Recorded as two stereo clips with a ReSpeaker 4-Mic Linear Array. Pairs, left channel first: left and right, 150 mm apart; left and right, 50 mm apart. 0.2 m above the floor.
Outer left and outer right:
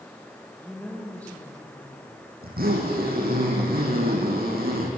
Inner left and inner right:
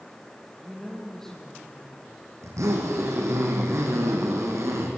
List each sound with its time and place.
0.6 s a woman speaking: 10° left (ahead or behind), 7 m
2.4 s a zipper: 85° right, 5.5 m